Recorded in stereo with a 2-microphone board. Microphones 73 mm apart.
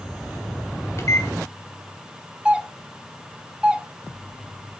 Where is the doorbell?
15° right (ahead or behind), 0.9 m.